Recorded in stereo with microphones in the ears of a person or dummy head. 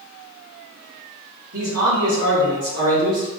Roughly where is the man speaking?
Right.